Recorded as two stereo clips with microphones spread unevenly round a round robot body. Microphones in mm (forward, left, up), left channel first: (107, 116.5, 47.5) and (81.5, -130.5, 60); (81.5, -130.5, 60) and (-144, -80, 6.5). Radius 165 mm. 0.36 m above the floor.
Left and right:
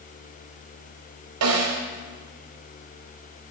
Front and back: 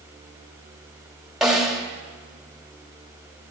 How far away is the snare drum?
About 1.4 m.